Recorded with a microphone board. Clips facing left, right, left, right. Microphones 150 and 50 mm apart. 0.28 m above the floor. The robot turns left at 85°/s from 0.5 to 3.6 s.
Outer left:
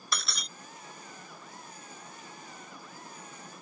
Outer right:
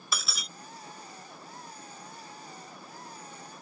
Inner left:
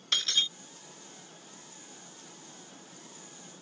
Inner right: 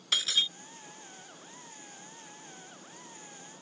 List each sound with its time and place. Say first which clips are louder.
0.1 s breaking glass: even, even; 5° right (ahead or behind)